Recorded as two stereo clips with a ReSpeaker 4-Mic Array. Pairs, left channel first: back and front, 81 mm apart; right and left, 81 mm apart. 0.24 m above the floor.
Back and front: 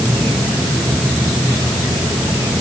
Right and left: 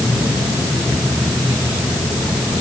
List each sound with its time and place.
Only background noise.